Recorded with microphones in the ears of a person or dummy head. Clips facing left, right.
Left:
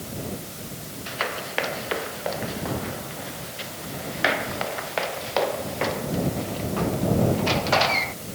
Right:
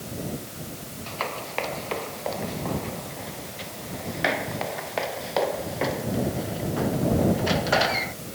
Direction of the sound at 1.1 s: 15° left (ahead or behind).